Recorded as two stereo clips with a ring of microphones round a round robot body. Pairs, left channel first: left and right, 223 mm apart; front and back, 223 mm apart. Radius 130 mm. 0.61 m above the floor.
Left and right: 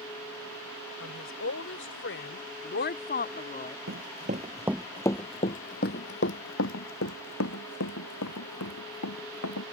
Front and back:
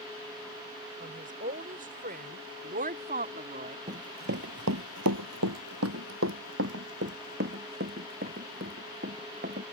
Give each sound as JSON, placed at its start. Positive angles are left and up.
{"t": 1.0, "sound": "a woman speaking", "azimuth_deg": 125}
{"t": 3.9, "sound": "running footsteps", "azimuth_deg": -125}